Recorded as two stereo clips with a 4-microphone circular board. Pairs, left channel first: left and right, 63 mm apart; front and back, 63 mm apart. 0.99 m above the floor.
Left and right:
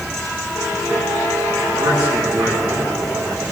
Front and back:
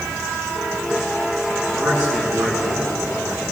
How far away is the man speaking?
About 8.5 m.